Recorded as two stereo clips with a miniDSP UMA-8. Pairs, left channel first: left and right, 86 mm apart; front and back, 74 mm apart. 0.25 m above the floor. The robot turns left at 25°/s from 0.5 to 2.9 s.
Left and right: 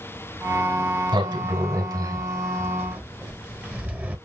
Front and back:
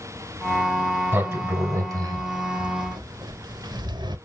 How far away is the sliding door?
About 1.2 m.